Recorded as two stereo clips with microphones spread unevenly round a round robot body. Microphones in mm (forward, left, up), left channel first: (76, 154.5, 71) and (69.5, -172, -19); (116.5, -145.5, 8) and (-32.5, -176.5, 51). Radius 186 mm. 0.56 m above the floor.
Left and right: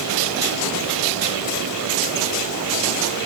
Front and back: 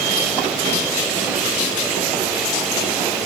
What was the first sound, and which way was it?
Only background noise.